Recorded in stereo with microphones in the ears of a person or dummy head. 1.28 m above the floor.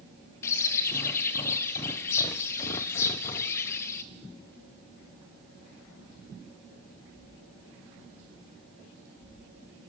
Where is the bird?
10° left (ahead or behind), 0.6 m.